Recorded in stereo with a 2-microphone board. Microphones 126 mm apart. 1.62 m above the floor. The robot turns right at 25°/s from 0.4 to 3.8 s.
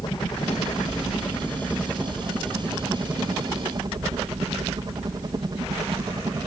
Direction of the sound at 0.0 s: 135° left.